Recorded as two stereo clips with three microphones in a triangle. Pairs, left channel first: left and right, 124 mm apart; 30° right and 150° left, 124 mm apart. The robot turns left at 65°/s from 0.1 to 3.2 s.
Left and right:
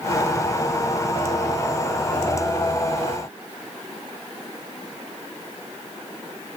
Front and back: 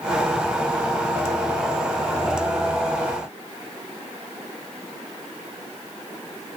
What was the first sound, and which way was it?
Only background noise.